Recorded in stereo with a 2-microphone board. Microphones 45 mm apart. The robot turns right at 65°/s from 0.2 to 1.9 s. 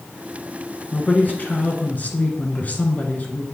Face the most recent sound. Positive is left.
turn(degrees=115)